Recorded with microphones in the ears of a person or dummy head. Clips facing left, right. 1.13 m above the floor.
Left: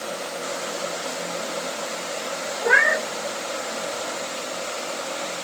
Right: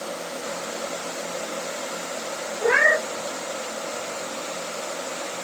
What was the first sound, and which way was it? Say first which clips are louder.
A cat meowing: right 2 dB; 65° right (ahead or behind).